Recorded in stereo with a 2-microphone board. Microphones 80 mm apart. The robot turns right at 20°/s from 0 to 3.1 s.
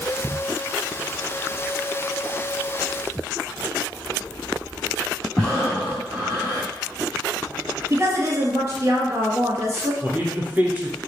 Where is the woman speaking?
35° right (ahead or behind), 1.7 m.